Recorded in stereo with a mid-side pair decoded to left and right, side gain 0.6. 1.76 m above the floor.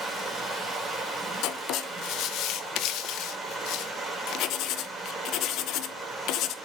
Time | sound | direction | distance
0.0 | running water | 5° right | 2.5 m
1.4 | writing | 65° left | 0.5 m